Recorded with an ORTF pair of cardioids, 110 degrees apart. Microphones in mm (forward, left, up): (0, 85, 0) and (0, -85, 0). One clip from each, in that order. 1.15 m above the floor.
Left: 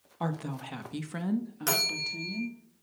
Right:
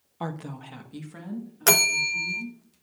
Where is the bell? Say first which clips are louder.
Right 8 dB; 50° right, 1.0 m.